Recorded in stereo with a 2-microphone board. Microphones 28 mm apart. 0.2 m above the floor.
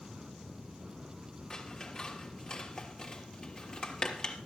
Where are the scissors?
30° left (ahead or behind), 3 m.